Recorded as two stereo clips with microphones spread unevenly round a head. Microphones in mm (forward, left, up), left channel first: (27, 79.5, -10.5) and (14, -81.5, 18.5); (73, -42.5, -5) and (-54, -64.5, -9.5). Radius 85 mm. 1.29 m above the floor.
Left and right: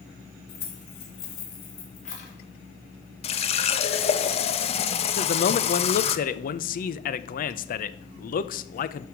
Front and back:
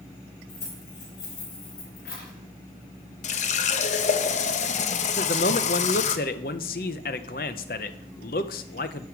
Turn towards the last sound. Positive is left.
turn(degrees=45)